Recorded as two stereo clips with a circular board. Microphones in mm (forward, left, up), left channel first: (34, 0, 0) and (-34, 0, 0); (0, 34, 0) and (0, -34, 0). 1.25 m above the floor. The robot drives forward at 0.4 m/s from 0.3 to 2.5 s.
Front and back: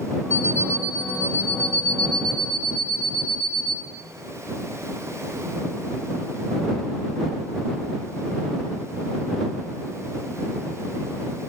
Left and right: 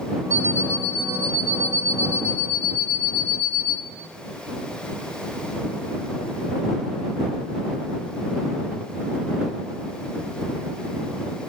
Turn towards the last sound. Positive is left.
turn(degrees=-80)